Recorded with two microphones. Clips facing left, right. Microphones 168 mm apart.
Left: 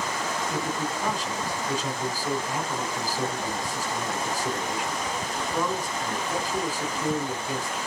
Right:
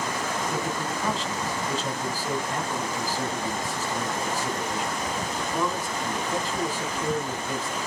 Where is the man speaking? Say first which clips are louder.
Even; 15° left (ahead or behind), 2.5 m.